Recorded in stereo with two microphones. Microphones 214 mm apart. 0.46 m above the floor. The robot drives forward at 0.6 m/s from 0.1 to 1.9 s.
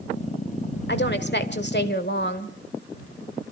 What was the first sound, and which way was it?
A woman speaking, 55° left (ahead or behind).